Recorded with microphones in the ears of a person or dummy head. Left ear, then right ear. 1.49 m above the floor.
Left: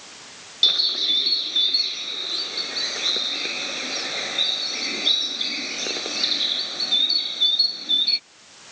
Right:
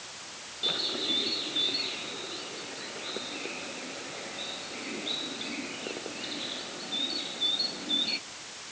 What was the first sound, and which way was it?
A bird, 85° left.